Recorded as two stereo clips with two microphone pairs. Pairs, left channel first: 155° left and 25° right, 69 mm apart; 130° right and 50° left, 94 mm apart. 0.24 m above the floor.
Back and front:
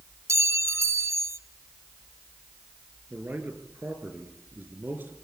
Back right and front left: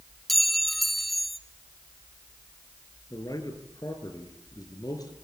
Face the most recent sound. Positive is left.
turn(degrees=-85)